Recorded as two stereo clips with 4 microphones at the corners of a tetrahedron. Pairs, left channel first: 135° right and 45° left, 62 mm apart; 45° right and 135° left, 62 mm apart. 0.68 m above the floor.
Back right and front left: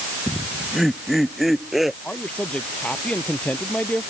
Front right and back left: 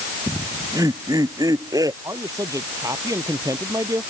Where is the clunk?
I don't hear a clunk.